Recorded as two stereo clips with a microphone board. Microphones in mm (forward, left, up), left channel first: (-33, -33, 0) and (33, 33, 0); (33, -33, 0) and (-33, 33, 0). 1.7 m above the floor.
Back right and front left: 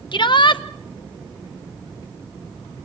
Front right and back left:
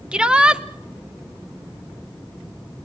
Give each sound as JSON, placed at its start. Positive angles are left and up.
{"t": 0.1, "sound": "a shout", "azimuth_deg": -145, "distance_m": 1.0}